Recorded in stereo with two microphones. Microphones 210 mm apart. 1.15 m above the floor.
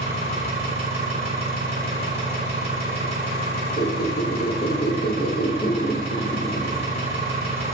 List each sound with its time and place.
0.0 s an engine running: 30° right (ahead or behind), 0.9 m
3.8 s a squeak: 45° left (ahead or behind), 0.5 m